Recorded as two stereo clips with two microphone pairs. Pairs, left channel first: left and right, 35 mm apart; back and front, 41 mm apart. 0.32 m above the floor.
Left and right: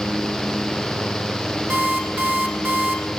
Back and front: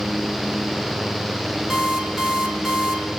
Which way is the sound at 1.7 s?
80° right.